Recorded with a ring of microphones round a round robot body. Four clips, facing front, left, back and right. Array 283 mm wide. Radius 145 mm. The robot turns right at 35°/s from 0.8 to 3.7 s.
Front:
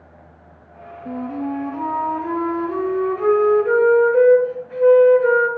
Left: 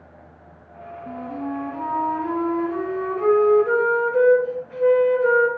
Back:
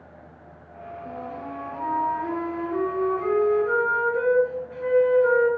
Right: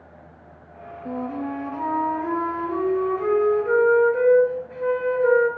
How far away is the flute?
About 1.5 m.